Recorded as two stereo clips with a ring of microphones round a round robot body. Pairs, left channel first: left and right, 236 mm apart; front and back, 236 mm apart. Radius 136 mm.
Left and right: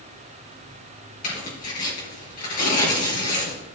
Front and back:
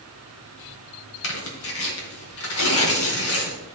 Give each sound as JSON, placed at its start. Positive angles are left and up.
{"t": 1.2, "sound": "tearing paper", "azimuth_deg": 30, "distance_m": 2.5}